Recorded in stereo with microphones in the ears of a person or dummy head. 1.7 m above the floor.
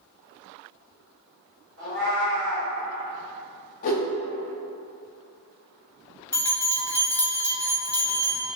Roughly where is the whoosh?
Left.